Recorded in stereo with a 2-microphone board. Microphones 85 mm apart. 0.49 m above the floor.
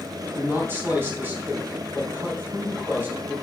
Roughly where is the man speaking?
Right.